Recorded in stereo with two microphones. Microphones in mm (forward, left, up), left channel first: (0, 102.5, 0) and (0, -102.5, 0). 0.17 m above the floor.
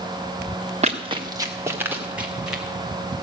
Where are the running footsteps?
35° right (ahead or behind), 1.3 m; by 2.6 s 5° right (ahead or behind), 3 m.